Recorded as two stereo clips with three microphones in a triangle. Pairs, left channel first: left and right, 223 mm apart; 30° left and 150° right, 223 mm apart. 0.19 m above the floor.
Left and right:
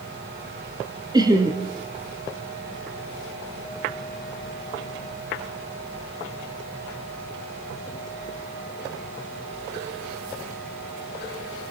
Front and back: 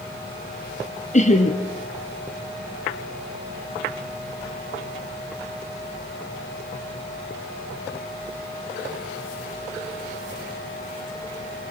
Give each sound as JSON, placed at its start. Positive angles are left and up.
{"t": 1.1, "sound": "laughter", "azimuth_deg": -20, "distance_m": 2.5}